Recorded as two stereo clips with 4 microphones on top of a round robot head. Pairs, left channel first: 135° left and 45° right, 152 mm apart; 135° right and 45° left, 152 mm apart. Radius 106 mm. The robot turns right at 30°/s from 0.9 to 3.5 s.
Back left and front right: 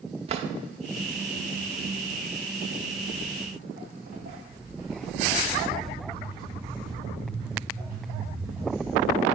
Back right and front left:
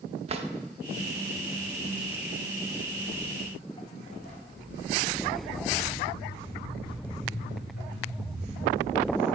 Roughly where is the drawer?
Ahead.